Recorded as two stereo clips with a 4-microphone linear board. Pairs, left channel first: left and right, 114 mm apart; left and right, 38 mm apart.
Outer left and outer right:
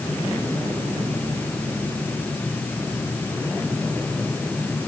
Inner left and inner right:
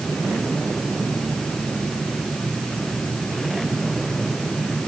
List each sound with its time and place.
Only background noise.